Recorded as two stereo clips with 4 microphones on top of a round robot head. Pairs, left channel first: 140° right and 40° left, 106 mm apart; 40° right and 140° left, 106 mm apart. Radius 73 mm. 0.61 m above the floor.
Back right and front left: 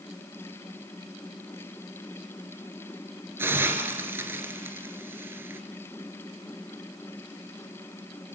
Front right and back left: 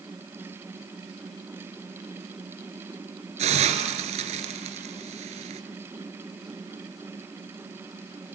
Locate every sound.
3.4 s a hiss: 110° left, 2.5 m